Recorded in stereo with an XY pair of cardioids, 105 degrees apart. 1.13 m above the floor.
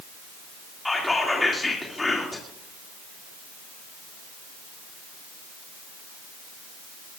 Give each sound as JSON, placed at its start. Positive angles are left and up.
{"t": 0.8, "sound": "whispering", "azimuth_deg": 15, "distance_m": 3.0}